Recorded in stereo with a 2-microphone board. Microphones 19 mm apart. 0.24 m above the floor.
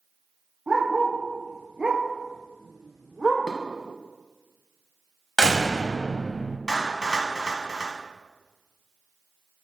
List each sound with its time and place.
0.7 s a dog barking: 65° right (ahead or behind), 2.5 m; by 3.5 s 10° left (ahead or behind), 1.9 m
3.5 s dishes clattering: 25° left (ahead or behind), 1.1 m
5.4 s a door slam: 30° left (ahead or behind), 0.8 m
6.7 s a clap: 45° left (ahead or behind), 1.5 m